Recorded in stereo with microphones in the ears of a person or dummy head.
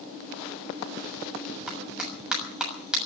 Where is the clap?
Centre (ahead or behind), 6.5 m.